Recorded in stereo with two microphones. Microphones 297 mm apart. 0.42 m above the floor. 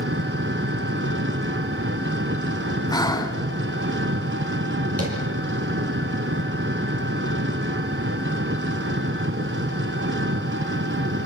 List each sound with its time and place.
0.0 s an engine running: 40° right (ahead or behind), 1.2 m
2.9 s breathing: 10° left (ahead or behind), 2.0 m
5.0 s tapping: 50° right (ahead or behind), 8.5 m